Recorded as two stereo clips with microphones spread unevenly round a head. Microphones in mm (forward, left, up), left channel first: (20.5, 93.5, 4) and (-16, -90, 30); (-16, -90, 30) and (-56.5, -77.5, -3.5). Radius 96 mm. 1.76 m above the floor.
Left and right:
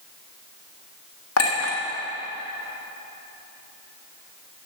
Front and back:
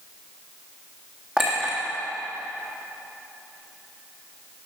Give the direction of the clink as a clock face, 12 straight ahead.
10 o'clock.